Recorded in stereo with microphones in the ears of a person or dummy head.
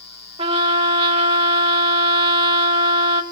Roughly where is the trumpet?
Right.